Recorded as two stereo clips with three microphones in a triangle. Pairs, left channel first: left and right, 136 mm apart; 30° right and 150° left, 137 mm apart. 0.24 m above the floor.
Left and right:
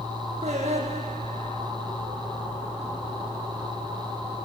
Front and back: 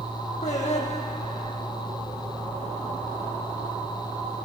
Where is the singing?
60° right, 8.5 m.